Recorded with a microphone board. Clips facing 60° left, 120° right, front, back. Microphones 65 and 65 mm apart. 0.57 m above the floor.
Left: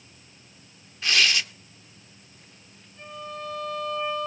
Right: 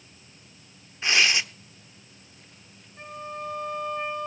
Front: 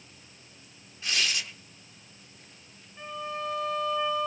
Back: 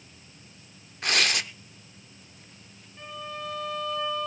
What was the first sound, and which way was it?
Tearing paper, 175° left.